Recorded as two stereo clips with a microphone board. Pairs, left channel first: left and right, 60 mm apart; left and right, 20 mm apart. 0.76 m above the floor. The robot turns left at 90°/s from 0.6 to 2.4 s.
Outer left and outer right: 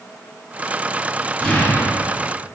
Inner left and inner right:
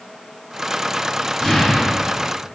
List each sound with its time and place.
1.4 s an explosion: 165° left, 1.5 m; by 2.3 s 80° left, 1.5 m